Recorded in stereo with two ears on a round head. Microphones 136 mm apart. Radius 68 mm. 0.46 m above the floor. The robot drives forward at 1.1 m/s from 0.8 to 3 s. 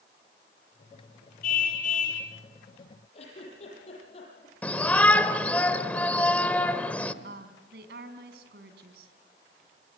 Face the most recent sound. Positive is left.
turn(degrees=-75)  # may be behind; listen again after turning